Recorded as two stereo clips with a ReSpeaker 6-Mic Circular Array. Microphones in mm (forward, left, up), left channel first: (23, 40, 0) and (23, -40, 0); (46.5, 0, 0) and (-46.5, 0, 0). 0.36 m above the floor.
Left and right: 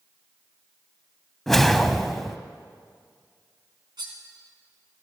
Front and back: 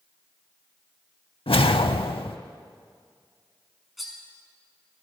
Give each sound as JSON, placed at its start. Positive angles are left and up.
{"t": 1.5, "sound": "a whoosh", "azimuth_deg": 5, "distance_m": 0.6}
{"t": 4.0, "sound": "cutlery clinking", "azimuth_deg": -90, "distance_m": 2.5}